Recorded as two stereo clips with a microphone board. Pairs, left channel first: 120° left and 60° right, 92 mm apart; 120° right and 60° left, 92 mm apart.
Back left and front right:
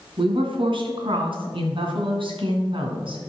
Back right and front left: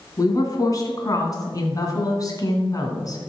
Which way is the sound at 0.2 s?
70° right.